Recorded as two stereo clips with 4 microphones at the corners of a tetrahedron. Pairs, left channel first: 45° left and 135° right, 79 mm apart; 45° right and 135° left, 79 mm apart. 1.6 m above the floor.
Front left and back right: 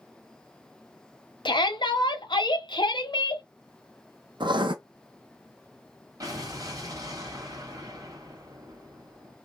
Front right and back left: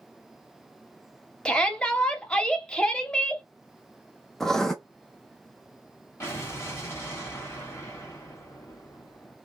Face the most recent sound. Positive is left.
turn(degrees=-100)